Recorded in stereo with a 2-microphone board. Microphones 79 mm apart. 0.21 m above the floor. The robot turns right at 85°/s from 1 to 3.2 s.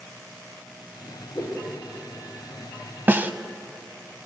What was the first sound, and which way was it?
A whoosh, 40° left (ahead or behind).